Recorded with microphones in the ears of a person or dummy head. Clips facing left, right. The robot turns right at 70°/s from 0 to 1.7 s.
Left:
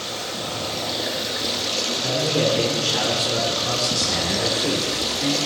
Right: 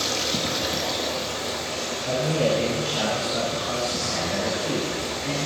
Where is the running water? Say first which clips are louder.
Right 3 dB; 65° right, 2 m; by 5.5 s 55° left, 2 m.